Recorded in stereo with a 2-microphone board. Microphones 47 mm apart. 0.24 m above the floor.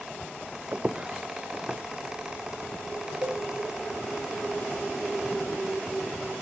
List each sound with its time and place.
0.7 s footsteps: 35° right (ahead or behind), 0.7 m; by 2.9 s centre (ahead or behind), 3 m
3.2 s a cowbell: 60° right (ahead or behind), 5.5 m